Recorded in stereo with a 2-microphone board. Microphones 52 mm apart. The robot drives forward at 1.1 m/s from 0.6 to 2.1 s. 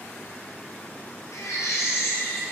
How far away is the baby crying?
About 2 m.